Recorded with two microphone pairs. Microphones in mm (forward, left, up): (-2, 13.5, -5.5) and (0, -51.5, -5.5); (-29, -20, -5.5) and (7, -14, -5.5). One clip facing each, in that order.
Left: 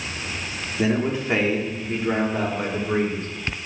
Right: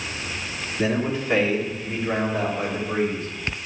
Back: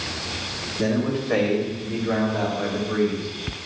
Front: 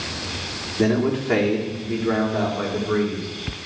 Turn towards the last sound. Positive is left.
turn(degrees=40)